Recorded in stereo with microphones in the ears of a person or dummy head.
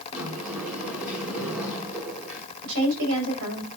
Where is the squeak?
I don't hear a squeak.